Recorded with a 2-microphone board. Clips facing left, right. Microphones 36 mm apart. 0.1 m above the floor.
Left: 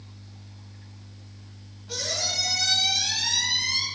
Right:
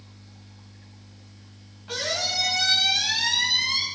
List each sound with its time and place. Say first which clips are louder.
1.9 s a squeak: right 3 dB; 60° right (ahead or behind), 4.5 m